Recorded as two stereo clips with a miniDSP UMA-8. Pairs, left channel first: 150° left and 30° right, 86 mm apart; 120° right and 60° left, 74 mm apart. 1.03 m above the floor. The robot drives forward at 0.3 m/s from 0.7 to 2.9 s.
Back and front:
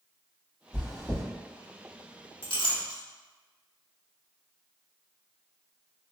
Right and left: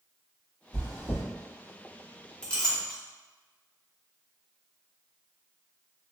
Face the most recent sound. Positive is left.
turn(degrees=165)